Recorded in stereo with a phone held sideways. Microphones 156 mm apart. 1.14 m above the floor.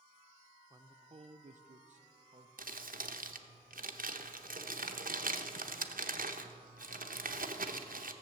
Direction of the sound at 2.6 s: 70° right (ahead or behind).